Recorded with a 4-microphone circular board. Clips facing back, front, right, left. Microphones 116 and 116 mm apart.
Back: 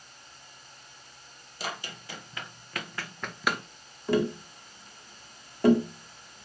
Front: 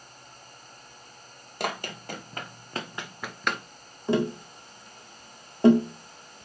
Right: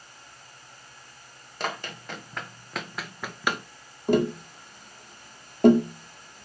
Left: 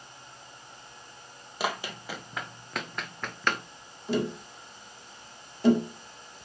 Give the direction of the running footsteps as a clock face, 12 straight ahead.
12 o'clock.